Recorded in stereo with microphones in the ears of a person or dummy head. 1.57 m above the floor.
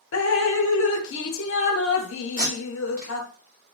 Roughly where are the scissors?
I don't hear scissors.